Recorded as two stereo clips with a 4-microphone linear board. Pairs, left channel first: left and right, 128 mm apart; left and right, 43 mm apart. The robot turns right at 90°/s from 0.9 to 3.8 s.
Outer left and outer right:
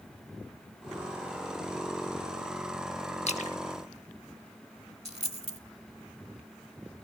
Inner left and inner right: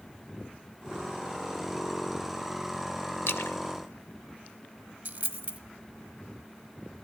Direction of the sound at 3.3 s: 60° left (ahead or behind).